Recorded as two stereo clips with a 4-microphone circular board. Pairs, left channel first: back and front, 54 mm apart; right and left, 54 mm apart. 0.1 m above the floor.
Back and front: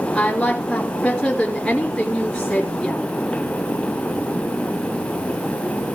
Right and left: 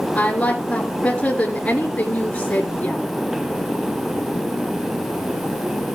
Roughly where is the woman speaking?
Behind right.